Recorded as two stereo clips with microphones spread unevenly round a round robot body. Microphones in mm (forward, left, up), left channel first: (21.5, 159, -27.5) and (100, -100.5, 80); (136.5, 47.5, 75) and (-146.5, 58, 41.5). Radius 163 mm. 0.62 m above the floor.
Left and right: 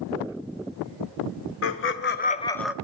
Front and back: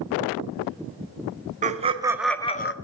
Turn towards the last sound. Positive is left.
turn(degrees=35)